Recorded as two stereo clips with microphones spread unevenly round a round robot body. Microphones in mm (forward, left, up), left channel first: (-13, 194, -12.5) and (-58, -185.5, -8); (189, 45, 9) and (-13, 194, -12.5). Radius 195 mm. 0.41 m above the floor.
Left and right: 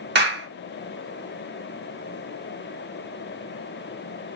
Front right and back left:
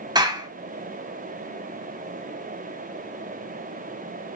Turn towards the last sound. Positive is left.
turn(degrees=-150)